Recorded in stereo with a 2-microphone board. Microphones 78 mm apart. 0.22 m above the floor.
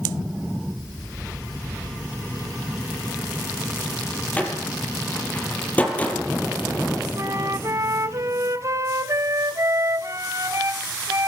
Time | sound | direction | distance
4.4 | a door slam | 20° left (ahead or behind) | 4.5 m
7.2 | a flute | 40° right (ahead or behind) | 0.8 m